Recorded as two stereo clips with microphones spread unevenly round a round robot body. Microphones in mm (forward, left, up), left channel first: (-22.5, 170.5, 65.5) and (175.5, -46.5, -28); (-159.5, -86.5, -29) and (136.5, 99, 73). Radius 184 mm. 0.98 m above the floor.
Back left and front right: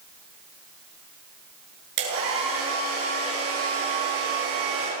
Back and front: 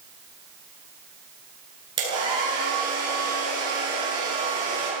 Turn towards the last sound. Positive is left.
turn(degrees=-45)